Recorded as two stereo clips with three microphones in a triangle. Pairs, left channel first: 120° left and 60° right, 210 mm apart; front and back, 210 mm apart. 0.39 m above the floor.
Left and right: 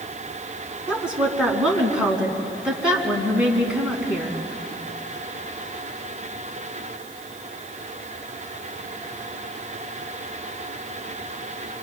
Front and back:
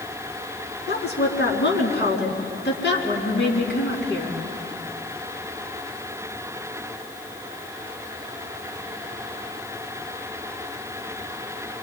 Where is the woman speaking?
25° left, 4 m.